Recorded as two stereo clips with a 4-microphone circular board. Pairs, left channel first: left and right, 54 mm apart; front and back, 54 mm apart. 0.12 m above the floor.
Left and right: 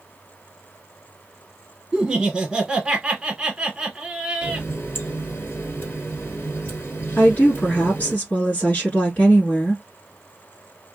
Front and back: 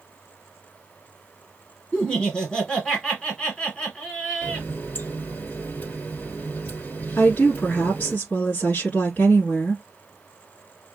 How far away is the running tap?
About 1.9 m.